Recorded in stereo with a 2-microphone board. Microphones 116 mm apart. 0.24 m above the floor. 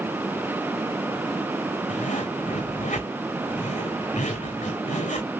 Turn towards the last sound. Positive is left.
turn(degrees=80)